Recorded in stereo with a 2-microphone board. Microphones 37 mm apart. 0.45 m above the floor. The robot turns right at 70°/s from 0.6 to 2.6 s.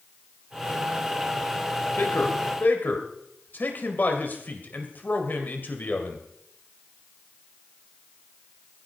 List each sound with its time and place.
2.0 s a man speaking: 70° left, 2.5 m; by 6.2 s 115° left, 2.5 m